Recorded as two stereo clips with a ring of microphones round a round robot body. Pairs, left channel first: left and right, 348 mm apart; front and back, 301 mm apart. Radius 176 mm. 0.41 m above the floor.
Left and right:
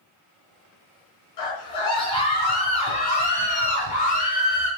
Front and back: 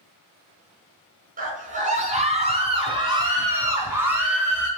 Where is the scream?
120° left, 4 m; by 4.7 s 90° left, 3.5 m.